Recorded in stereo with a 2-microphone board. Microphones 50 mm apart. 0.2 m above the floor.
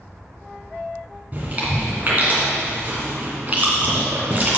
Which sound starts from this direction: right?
Chewing, at 1.3 s.